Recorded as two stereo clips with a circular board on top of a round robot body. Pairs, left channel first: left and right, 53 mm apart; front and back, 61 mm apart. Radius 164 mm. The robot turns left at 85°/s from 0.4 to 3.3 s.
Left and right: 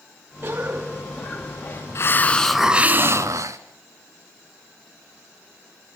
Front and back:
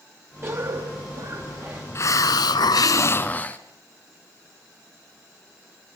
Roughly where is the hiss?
Ahead left.